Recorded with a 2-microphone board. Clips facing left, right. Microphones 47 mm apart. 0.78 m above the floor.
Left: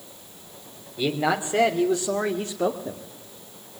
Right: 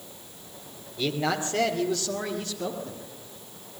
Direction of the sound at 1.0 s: 15° left (ahead or behind).